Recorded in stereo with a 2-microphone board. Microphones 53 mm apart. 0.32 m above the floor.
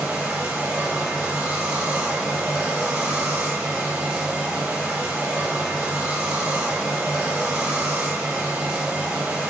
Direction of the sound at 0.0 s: 20° right (ahead or behind).